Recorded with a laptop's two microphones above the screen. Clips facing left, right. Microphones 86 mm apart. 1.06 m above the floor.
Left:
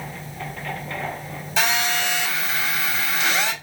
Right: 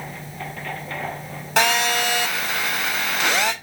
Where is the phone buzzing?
80° right, 1.9 m.